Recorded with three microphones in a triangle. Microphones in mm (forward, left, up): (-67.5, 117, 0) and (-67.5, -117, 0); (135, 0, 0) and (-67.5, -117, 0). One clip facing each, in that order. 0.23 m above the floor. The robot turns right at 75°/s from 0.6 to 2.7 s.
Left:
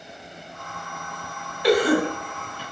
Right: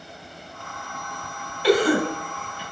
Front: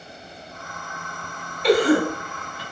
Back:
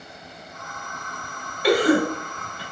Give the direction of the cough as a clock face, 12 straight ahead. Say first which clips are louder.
Even, front 1 dB; 7 o'clock.